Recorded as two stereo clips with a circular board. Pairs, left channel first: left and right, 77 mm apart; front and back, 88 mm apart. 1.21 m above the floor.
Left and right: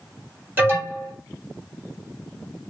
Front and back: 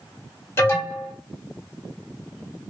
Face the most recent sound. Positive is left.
turn(degrees=-45)